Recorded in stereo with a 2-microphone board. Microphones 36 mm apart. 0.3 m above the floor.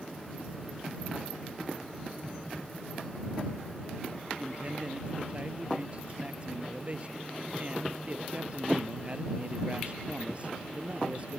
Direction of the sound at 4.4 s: 40° right (ahead or behind).